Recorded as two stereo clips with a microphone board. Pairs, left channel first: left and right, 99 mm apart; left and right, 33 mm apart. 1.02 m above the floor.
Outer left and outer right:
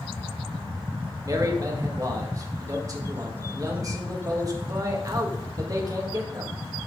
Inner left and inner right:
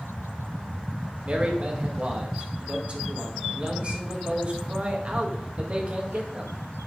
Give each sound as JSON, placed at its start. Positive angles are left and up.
{"t": 1.2, "sound": "a man speaking", "side_deg": -35, "distance_m": 1.5}